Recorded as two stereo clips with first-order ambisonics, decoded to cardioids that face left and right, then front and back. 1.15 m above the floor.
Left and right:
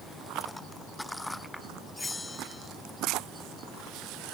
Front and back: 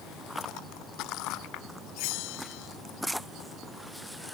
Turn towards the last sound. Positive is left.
turn(degrees=5)